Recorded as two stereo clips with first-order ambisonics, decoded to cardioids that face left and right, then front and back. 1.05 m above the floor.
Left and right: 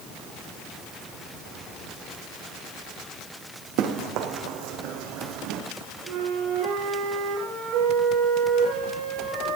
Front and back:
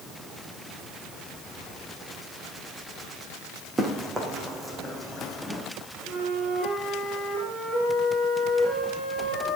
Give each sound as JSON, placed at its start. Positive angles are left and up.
{"t": 3.8, "sound": "running footsteps", "azimuth_deg": -110, "distance_m": 3.0}
{"t": 6.1, "sound": "a flute", "azimuth_deg": -105, "distance_m": 6.0}